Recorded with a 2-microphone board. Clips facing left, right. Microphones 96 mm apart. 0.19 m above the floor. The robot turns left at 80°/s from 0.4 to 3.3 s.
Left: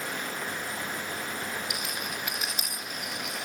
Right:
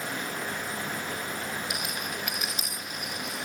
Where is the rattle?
25° right (ahead or behind), 4.5 m; by 3.4 s 80° left, 4.5 m.